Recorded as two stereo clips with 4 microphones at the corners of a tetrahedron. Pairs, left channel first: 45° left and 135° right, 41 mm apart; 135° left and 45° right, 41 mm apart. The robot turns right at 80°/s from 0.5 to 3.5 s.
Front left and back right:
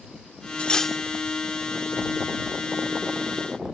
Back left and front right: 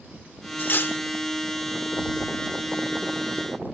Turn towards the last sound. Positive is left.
turn(degrees=-25)